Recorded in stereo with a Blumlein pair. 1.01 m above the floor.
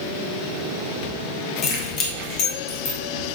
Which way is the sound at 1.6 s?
35° left.